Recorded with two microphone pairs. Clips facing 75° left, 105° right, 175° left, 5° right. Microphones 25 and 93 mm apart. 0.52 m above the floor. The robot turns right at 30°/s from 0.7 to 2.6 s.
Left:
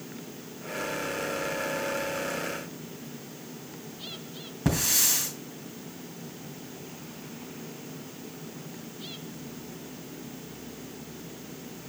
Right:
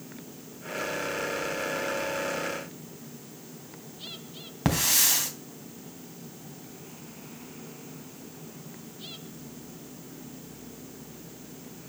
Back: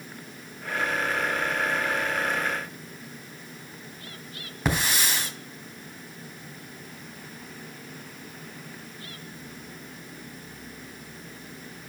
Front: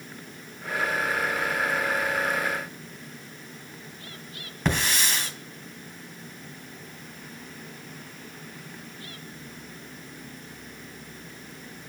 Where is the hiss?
100° right, 3.5 m.